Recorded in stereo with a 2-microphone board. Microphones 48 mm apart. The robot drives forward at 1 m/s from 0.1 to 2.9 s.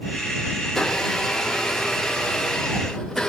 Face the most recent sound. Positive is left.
turn(degrees=10)  # may be behind; listen again after turning